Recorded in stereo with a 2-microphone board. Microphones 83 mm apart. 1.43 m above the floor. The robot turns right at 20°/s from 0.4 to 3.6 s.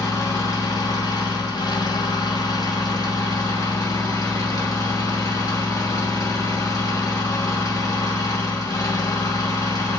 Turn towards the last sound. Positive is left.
turn(degrees=125)